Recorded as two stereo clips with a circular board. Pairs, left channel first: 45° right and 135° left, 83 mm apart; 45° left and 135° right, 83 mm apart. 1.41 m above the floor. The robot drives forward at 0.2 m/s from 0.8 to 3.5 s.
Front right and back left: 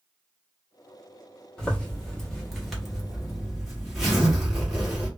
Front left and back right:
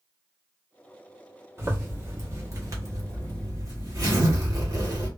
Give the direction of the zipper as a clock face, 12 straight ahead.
4 o'clock.